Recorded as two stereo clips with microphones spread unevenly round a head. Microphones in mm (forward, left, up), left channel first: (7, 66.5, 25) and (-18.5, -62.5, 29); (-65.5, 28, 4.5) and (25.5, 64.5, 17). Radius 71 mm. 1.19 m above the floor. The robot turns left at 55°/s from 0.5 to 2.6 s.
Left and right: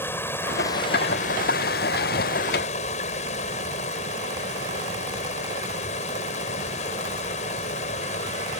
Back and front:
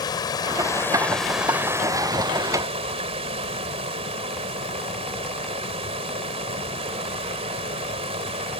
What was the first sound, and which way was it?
Running water, 155° left.